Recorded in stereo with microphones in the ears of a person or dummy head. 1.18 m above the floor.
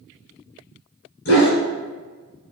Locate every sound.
1.2 s a dog barking: 60° left (ahead or behind), 1.5 m